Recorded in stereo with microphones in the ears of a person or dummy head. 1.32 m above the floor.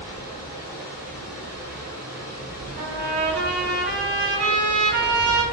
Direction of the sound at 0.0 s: 25° left (ahead or behind).